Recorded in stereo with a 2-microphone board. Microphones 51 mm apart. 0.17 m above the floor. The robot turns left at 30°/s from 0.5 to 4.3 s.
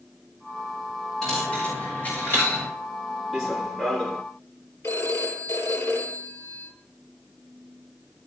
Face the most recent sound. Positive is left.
turn(degrees=65)  # may be behind; listen again after turning